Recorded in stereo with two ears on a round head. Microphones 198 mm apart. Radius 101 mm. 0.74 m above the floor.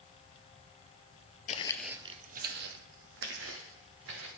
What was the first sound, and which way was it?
Footsteps, 35° left (ahead or behind).